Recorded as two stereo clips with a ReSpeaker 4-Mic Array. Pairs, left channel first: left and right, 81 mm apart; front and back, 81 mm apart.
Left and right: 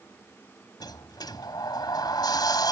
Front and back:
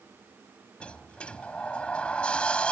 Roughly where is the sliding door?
Left.